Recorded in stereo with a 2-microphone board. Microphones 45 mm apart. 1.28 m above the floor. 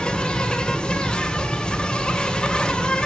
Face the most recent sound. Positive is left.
turn(degrees=20)  # may be behind; listen again after turning